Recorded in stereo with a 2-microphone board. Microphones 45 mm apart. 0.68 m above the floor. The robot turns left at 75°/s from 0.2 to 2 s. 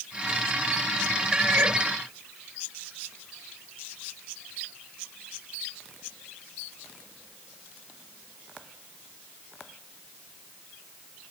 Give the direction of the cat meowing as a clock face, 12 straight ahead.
12 o'clock.